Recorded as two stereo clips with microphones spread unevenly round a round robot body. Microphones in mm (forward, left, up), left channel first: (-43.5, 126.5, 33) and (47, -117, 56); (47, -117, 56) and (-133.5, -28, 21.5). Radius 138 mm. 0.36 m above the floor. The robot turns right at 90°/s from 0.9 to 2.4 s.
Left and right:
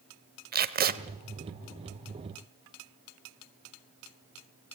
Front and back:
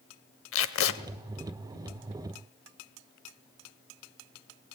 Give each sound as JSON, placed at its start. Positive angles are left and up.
{"t": 0.5, "sound": "tape being pulled", "azimuth_deg": -15, "distance_m": 1.0}